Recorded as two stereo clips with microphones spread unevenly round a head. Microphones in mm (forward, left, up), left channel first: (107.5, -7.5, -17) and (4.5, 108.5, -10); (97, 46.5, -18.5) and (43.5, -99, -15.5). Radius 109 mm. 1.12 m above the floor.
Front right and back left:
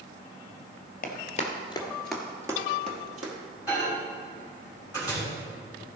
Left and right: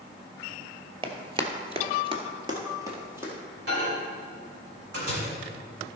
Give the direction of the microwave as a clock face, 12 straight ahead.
5 o'clock.